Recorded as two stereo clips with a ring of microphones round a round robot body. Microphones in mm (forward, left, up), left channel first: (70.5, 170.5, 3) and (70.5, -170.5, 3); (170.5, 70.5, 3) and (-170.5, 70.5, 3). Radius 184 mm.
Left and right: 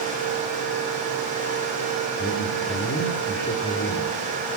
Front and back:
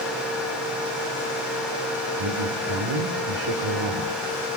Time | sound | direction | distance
2.2 | a man speaking | 155° left | 2.5 m